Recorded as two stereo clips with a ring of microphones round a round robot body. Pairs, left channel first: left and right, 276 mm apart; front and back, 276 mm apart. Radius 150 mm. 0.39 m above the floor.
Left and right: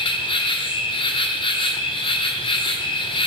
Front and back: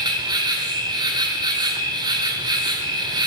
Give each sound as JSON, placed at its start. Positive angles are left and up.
{"t": 0.0, "sound": "an insect", "azimuth_deg": 130, "distance_m": 1.4}